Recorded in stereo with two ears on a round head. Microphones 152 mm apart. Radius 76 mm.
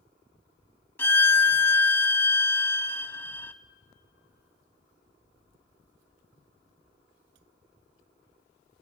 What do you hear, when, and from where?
1.0 s a violin: 10° left (ahead or behind), 0.6 m